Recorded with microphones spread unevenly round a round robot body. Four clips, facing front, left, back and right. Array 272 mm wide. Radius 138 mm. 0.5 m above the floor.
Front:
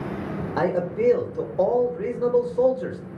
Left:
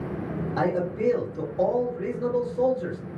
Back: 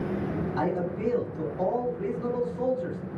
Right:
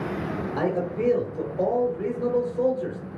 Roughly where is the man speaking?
Ahead.